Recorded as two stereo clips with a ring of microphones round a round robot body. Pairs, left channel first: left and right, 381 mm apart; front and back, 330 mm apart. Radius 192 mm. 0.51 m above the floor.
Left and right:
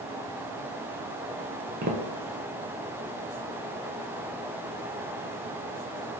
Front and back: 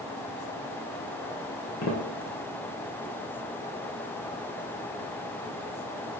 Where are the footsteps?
40° right, 0.6 m.